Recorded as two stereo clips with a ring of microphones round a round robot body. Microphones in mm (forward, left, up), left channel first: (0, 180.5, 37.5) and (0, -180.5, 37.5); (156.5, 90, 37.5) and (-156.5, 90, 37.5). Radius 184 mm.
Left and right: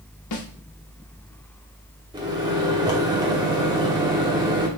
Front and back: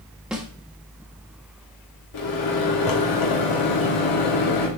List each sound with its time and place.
0.3 s a snare drum: 95° left, 1.4 m
2.1 s a microwave: 10° right, 1.4 m